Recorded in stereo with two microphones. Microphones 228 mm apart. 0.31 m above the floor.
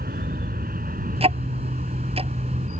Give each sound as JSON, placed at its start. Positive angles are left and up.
{"t": 0.0, "sound": "an aircraft", "side_deg": -40}
{"t": 1.2, "sound": "ticking", "side_deg": -25}